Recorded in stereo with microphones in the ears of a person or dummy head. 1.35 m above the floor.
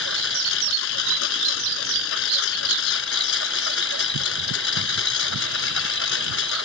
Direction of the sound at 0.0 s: 70° left (ahead or behind).